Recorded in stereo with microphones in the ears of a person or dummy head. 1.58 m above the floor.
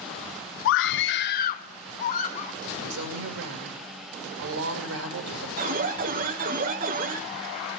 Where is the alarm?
35° right (ahead or behind), 1.2 m.